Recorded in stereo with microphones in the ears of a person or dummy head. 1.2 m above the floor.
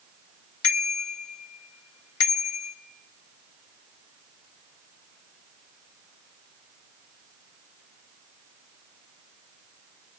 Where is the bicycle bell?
85° left, 2 m.